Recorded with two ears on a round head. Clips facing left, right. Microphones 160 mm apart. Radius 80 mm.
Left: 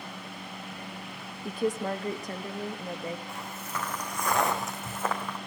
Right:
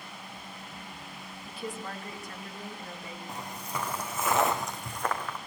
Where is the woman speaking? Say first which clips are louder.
Left 10 dB; 40° left (ahead or behind), 1.4 m; by 3.2 s 30° left (ahead or behind), 2.5 m.